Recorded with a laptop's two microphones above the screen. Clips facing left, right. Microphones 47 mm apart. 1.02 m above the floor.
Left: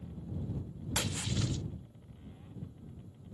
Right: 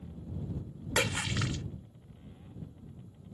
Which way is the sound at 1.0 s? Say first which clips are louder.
Right 6 dB; 70° right (ahead or behind).